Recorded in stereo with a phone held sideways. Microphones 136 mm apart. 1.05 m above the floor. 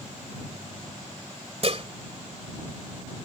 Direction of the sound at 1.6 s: 50° right (ahead or behind).